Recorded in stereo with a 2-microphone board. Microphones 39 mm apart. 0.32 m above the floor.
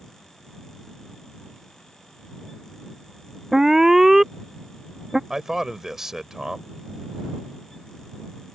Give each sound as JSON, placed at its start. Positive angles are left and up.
{"t": 3.5, "sound": "an alarm", "side_deg": -10}
{"t": 5.3, "sound": "a man speaking", "side_deg": -10}